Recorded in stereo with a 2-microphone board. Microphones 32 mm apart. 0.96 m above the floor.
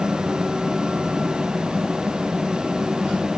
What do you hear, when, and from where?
Only background noise.